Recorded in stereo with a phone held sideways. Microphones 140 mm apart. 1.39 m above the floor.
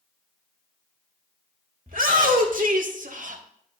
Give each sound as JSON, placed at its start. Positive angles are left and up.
{"t": 1.9, "sound": "a shout", "side_deg": -85, "distance_m": 1.9}